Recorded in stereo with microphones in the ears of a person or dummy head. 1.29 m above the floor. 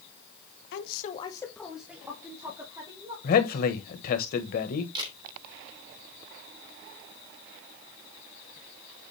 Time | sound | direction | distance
0.7 | a woman speaking | 65° left (ahead or behind) | 1.1 m
3.2 | a man speaking | 45° left (ahead or behind) | 1.4 m
5.0 | a camera shutter | 30° right (ahead or behind) | 3 m